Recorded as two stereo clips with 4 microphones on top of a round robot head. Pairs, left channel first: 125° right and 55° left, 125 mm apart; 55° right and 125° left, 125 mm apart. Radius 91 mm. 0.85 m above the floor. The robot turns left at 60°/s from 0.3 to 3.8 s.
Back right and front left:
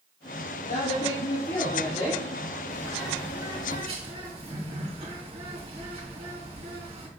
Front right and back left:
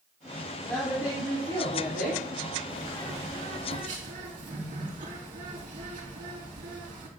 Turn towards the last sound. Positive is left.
turn(degrees=100)